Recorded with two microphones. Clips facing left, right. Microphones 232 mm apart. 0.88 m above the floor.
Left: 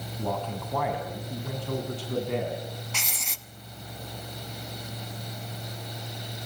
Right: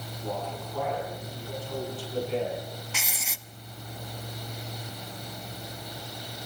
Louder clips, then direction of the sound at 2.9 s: Even; 5° right (ahead or behind).